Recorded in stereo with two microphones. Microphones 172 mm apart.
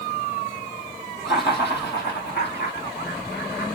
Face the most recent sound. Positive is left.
turn(degrees=80)